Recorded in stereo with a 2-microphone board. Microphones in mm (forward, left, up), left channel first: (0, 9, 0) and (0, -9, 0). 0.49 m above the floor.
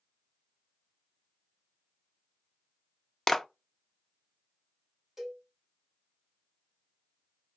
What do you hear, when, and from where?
3.3 s a clap: 20° left (ahead or behind), 0.5 m
5.2 s a cowbell: 25° right (ahead or behind), 3 m